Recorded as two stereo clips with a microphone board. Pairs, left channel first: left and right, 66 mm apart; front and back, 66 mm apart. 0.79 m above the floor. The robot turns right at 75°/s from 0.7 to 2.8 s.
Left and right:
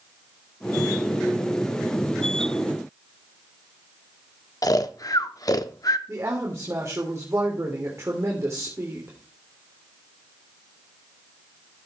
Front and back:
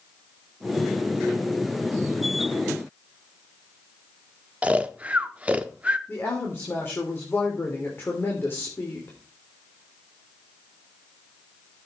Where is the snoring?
110° left, 0.7 m.